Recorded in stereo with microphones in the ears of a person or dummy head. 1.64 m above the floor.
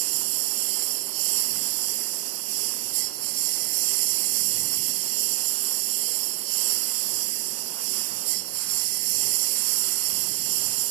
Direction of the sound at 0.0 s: 65° right (ahead or behind).